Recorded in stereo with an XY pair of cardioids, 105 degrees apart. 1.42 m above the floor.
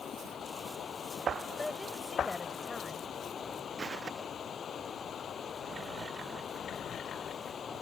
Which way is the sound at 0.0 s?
50° left.